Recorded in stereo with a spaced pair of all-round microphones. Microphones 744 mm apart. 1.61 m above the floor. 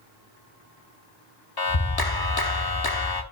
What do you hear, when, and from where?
1.6 s a clap: 30° left (ahead or behind), 1.0 m